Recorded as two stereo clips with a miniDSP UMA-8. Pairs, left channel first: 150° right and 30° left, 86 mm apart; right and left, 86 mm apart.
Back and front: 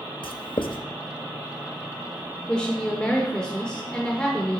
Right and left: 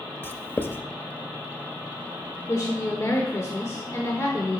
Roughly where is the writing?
Behind right.